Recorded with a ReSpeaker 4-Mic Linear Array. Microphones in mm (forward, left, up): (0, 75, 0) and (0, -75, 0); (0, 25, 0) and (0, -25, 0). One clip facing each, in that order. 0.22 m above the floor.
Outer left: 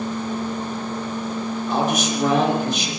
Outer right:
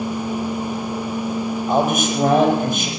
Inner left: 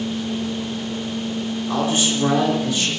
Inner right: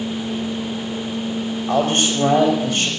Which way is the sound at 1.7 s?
55° right (ahead or behind).